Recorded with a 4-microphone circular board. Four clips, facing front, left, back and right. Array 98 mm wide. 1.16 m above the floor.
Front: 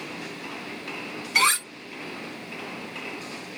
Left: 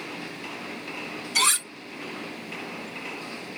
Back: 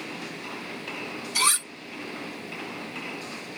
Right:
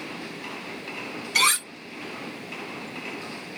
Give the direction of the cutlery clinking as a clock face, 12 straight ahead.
1 o'clock.